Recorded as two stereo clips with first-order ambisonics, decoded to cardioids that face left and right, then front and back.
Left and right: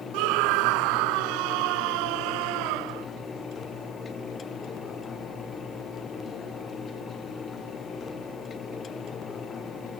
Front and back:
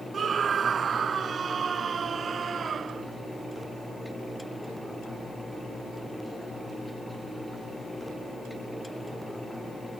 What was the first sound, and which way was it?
A scream, 110° right.